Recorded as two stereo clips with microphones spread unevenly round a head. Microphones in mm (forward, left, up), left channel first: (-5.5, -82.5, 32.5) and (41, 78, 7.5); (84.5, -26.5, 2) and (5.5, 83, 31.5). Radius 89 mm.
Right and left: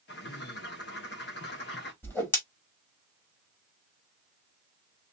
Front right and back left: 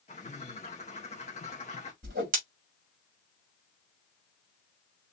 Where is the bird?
115° right, 1.3 m.